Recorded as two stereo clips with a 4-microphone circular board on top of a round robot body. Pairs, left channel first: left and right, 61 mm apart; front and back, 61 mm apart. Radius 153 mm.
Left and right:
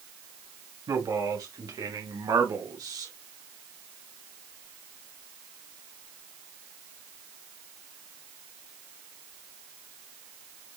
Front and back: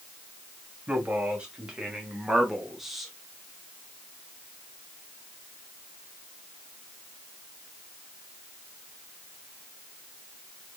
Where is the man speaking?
110° right, 4 m; by 3.1 s 90° right, 3.5 m.